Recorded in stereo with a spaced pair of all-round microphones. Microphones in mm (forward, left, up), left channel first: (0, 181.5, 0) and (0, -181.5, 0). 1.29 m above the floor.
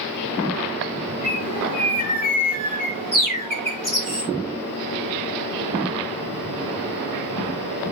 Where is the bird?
60° left (ahead or behind), 6 m.